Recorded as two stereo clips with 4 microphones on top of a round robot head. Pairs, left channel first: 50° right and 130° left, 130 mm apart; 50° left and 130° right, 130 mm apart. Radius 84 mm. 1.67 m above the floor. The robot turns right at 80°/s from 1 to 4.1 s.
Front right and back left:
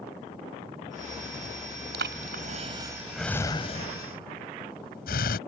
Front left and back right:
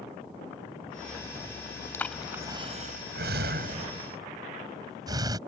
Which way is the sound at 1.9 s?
120° left.